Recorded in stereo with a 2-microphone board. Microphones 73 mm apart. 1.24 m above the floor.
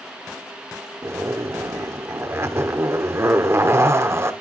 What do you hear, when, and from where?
1.0 s a zipper: 35° right (ahead or behind), 1.0 m